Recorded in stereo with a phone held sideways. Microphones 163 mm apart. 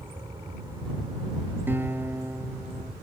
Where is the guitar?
10° right (ahead or behind).